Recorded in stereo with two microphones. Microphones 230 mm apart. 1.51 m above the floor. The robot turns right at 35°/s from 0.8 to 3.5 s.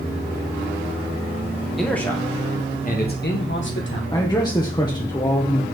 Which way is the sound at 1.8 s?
Straight ahead.